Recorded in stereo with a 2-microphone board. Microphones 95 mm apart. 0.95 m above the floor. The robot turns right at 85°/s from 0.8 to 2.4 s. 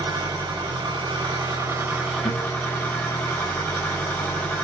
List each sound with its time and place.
0.0 s an engine running: 115° right, 1.7 m; by 4.7 s 20° left, 1.7 m
2.2 s a guitar: 85° left, 2.5 m; by 2.5 s 75° left (ahead or behind), 2.5 m